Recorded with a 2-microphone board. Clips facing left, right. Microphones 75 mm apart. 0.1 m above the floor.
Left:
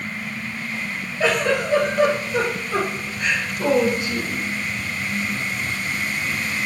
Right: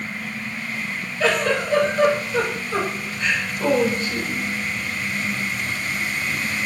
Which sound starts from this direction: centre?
A giggle, at 1.2 s.